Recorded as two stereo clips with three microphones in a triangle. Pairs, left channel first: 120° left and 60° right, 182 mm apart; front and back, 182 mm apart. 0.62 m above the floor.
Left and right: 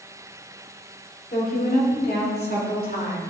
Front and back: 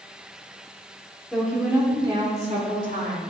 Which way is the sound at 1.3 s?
90° left.